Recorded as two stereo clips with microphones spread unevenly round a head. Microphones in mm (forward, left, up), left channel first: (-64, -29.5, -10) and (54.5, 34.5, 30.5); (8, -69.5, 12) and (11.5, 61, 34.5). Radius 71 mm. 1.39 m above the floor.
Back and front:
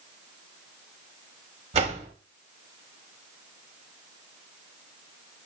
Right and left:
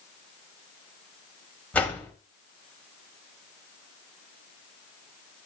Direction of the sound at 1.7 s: 10° right.